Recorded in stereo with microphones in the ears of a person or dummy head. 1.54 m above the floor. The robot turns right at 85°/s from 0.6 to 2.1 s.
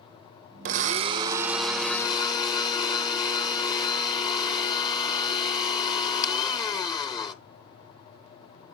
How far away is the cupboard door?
I don't hear a cupboard door.